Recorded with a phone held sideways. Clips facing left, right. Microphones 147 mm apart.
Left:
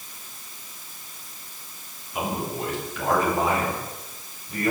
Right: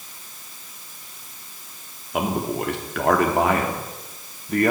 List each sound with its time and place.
2.1 s a man speaking: 70° right (ahead or behind), 2.5 m